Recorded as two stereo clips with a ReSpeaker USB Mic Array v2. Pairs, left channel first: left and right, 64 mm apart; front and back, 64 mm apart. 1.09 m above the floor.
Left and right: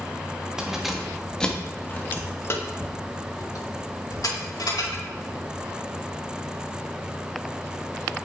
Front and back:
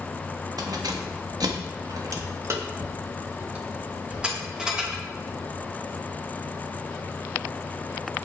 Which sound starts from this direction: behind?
Keys jangling, at 0.6 s.